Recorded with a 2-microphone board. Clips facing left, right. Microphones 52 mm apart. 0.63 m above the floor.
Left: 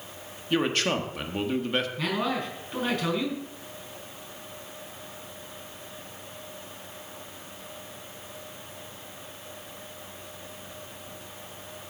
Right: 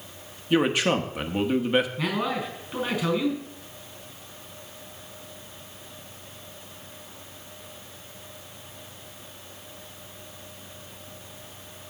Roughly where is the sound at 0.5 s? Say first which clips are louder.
Right 4 dB; centre.